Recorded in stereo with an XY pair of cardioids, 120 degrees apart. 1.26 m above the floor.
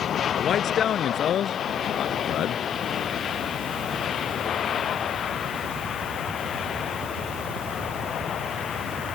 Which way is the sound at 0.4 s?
50° left.